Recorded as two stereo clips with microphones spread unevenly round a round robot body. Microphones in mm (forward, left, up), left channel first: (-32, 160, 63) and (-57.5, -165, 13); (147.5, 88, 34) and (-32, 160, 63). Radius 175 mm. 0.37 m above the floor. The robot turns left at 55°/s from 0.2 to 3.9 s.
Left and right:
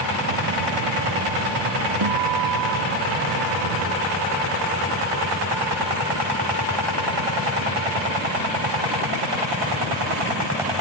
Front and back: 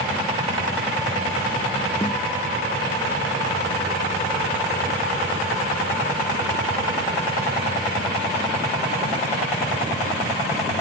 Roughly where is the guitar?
Right.